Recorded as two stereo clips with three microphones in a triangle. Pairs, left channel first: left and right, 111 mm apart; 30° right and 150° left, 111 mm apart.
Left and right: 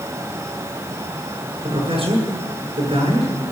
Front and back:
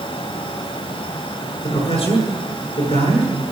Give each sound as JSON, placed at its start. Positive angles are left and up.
{"t": 1.6, "sound": "a man speaking", "azimuth_deg": -55, "distance_m": 7.0}